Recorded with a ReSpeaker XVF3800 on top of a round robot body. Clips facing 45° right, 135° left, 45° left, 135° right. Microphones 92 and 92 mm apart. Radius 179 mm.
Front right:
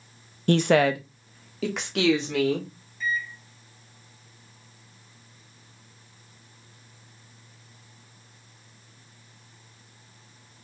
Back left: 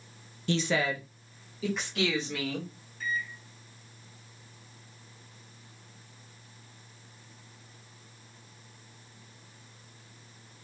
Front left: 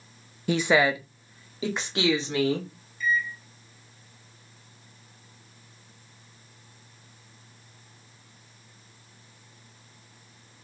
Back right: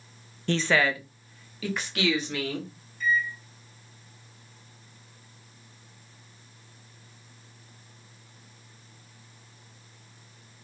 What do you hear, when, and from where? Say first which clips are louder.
0.5 s a woman speaking: front right 9 dB, front left 3 dB; 35° right, 0.6 m; by 2.7 s 20° right, 2.5 m
3.0 s a microwave: front right 4 dB, even; 175° left, 2.5 m